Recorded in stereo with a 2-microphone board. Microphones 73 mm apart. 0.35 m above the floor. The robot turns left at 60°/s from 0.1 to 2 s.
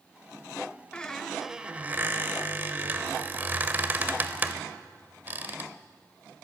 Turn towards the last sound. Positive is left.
turn(degrees=-45)